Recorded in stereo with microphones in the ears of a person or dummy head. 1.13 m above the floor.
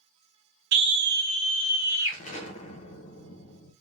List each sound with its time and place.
0.7 s a scream: 60° right (ahead or behind), 1.0 m; by 2.2 s 10° right (ahead or behind), 1.6 m
2.1 s an explosion: 40° left (ahead or behind), 0.5 m